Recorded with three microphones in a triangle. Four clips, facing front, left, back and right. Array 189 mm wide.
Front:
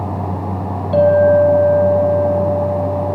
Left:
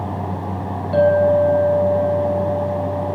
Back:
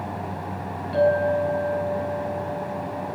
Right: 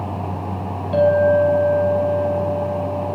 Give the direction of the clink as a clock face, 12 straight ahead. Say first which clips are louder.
Even, front 10 dB; 12 o'clock.